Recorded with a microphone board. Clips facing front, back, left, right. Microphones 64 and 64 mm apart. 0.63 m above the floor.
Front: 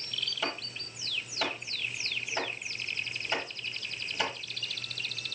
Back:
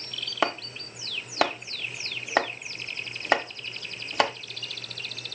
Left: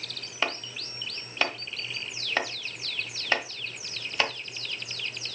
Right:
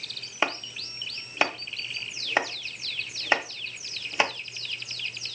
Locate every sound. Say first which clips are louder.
0.4 s chopping: back 11 dB, right 3 dB; 165° right, 1.0 m